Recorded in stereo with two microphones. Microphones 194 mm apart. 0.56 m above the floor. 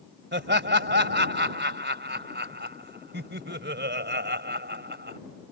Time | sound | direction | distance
0.3 | laughter | 65° right (ahead or behind) | ?